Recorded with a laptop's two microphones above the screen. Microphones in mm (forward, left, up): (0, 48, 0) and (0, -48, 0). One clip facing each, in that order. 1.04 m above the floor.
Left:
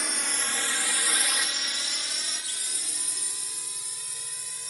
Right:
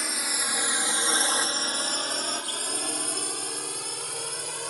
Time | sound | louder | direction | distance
0.0 | a drone | right 1 dB | centre (ahead or behind) | ?